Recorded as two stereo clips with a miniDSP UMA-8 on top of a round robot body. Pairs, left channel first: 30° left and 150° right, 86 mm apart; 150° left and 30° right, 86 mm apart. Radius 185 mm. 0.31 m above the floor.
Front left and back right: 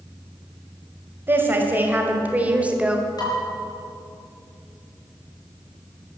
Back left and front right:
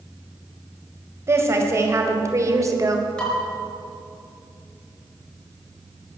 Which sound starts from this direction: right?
A woman speaking, at 1.3 s.